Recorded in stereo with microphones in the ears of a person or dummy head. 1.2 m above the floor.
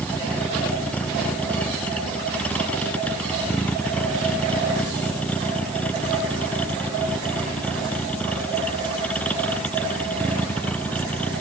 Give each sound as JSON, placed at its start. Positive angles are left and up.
{"t": 0.0, "sound": "a vehicle", "side_deg": 5}